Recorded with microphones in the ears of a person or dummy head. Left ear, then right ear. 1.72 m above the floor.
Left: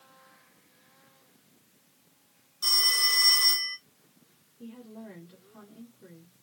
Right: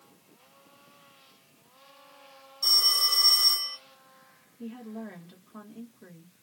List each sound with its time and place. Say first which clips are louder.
2.6 s a phone ringing: right 1 dB; 10° left (ahead or behind), 1.9 m
4.6 s a woman speaking: right 5 dB; 55° right (ahead or behind), 1.6 m